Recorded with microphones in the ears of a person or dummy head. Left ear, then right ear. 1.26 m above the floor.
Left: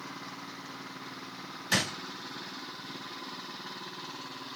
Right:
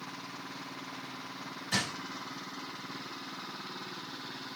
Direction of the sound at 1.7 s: 55° left (ahead or behind).